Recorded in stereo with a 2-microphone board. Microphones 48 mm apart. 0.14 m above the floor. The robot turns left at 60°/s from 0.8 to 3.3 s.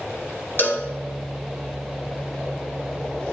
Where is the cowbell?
45° left (ahead or behind), 1.3 m.